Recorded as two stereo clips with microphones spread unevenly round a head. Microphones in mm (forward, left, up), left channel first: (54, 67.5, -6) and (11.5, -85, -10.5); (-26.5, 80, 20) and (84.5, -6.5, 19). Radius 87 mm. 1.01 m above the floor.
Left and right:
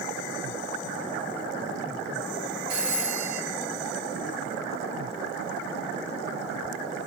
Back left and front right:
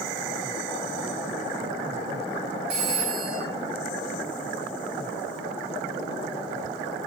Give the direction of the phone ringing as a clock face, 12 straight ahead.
2 o'clock.